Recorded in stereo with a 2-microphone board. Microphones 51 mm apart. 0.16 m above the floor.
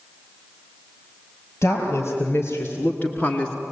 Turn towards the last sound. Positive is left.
turn(degrees=15)  # may be behind; listen again after turning